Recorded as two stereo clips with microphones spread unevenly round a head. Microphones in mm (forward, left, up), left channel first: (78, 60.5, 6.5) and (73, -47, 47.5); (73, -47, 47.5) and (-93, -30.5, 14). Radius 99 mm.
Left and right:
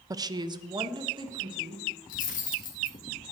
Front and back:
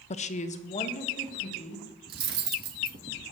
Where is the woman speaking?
45° right, 0.6 m; by 1.9 s 50° right, 3.5 m.